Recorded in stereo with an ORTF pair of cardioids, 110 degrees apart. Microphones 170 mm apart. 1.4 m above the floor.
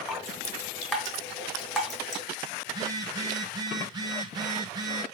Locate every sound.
0.1 s dripping: straight ahead, 2 m
2.7 s a phone buzzing: 20° right, 1.1 m